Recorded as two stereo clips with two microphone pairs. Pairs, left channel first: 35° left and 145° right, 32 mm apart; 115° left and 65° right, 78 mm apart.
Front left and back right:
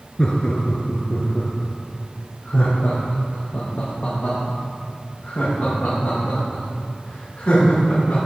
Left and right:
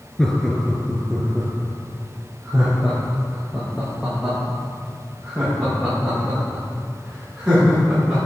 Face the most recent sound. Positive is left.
turn(degrees=10)